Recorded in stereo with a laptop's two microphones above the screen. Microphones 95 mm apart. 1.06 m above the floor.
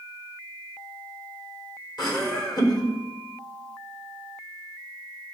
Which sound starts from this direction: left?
Laughter, at 2.0 s.